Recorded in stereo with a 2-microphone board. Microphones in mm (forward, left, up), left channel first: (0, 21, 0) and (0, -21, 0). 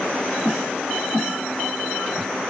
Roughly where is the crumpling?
I don't hear crumpling.